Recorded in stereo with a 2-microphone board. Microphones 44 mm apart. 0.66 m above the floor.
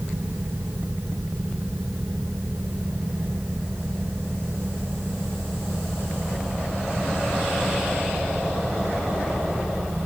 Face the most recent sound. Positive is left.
No sound to turn to.